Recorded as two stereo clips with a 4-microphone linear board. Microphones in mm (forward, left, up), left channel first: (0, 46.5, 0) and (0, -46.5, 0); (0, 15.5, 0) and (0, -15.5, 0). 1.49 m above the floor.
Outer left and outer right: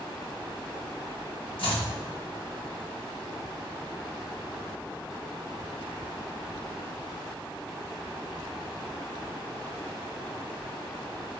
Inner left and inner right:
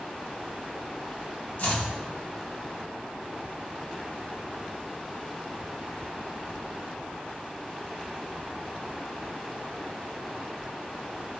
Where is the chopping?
70° left (ahead or behind), 1.6 m.